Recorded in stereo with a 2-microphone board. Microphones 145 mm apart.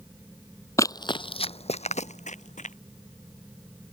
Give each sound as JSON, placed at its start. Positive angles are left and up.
{"t": 0.8, "sound": "running footsteps", "side_deg": 20}